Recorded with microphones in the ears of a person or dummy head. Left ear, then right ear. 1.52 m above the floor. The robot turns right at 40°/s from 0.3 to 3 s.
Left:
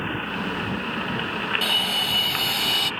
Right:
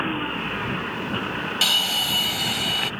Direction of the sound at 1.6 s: 20° right.